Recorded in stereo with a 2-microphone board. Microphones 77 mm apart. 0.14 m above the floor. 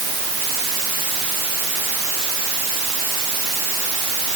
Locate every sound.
Only background noise.